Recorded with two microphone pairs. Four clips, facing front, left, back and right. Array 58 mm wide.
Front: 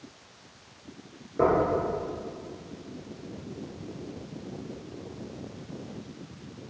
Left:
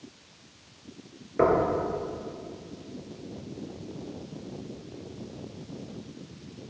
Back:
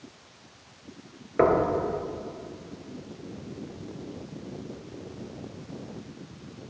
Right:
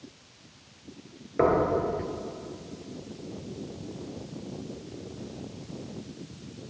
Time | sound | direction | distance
1.4 | knocking | 175° right | 2 m